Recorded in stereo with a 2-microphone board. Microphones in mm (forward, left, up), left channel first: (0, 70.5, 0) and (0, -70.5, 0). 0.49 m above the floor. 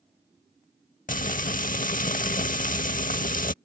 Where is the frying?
75° left (ahead or behind).